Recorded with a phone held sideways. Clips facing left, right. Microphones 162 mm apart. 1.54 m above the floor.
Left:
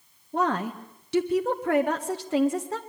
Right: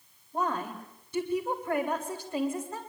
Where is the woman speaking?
80° left, 1.9 m.